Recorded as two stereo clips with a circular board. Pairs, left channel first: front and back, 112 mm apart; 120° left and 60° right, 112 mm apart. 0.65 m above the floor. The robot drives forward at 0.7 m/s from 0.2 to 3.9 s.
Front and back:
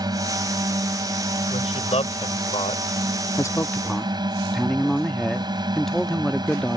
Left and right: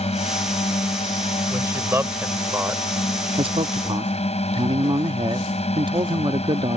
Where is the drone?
130° left.